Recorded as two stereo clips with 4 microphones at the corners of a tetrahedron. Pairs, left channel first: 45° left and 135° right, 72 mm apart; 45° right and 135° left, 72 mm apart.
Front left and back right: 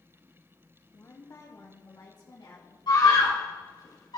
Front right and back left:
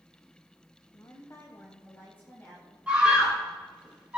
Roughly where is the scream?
Ahead left.